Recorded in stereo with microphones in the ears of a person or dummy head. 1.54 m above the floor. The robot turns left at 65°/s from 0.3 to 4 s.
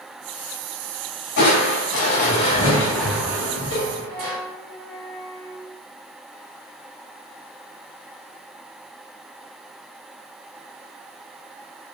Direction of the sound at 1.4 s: 110° left.